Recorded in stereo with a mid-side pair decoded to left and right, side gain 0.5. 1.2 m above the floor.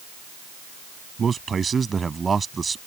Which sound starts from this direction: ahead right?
A man speaking, at 1.2 s.